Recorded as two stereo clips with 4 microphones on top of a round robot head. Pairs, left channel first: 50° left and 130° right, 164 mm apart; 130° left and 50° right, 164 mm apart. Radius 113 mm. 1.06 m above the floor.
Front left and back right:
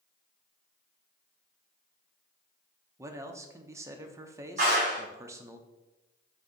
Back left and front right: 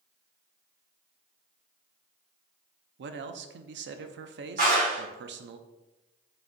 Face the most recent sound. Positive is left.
turn(degrees=-85)